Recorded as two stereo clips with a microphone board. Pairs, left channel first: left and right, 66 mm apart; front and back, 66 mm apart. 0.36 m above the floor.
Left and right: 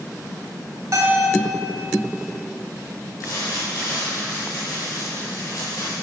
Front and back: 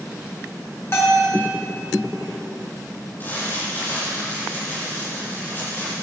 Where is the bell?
50° right, 3 m.